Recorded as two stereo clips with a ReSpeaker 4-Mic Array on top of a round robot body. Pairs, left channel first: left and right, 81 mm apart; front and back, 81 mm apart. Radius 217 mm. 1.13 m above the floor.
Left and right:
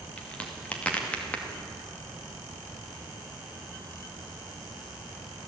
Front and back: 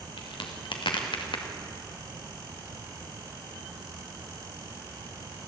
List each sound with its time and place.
0.2 s a crack: 15° left, 2.5 m